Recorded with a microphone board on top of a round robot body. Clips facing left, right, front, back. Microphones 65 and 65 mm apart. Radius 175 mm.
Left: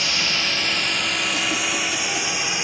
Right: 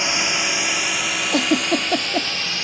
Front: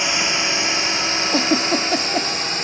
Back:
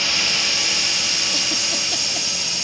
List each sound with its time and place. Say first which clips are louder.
0.0 s a drone: right 2 dB, front 3 dB; 45° right; by 2.6 s 20° left
1.3 s a giggle: right 5 dB, front 9 dB; 55° right